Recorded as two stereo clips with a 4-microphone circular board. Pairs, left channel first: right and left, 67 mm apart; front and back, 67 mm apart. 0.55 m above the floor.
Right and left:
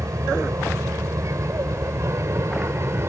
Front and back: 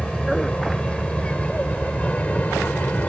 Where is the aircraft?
75° left; by 3.1 s 60° left.